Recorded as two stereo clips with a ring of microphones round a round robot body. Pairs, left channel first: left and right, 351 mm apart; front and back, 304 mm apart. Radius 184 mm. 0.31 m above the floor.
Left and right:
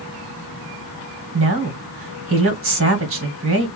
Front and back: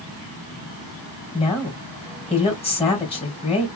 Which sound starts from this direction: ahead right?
A woman speaking, at 1.3 s.